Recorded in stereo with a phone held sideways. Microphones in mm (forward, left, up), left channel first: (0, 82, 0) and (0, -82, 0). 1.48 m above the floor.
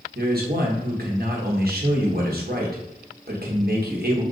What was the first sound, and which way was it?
A man speaking, 70° right (ahead or behind).